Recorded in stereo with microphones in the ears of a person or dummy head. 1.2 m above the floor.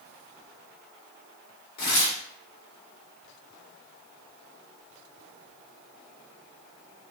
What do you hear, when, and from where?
1.8 s tearing paper: 55° left (ahead or behind), 0.9 m